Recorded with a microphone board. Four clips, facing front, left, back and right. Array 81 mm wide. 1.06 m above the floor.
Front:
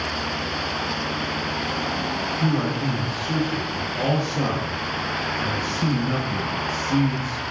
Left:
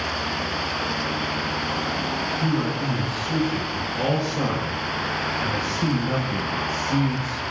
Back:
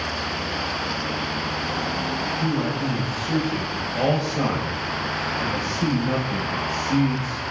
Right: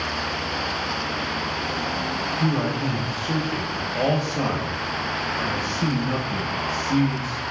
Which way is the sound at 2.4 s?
75° right.